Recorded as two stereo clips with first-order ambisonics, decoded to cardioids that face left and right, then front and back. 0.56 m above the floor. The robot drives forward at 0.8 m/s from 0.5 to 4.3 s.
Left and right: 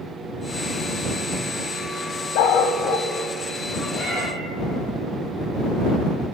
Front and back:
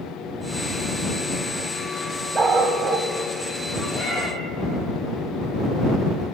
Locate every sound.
2.4 s a dog barking: 105° left, 1.1 m; by 3.1 s 130° left, 1.4 m
3.9 s a cat meowing: 90° left, 5 m; by 4.3 s 95° left, 5 m